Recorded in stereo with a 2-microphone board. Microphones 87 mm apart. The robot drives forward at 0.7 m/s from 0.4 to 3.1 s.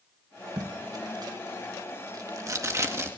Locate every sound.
0.6 s tape being pulled: 45° right (ahead or behind), 1.4 m; by 3.1 s 35° right (ahead or behind), 1.8 m